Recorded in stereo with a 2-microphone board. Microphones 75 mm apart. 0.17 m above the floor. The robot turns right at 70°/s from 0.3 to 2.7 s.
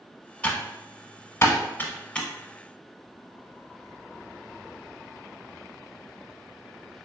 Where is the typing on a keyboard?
15° left (ahead or behind), 0.7 m; by 2.3 s 10° left (ahead or behind), 0.7 m.